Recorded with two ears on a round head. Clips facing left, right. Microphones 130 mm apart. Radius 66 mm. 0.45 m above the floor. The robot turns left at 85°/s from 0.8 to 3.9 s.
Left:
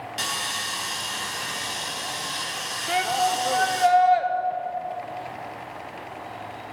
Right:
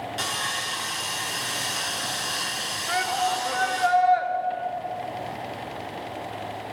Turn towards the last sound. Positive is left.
turn(degrees=50)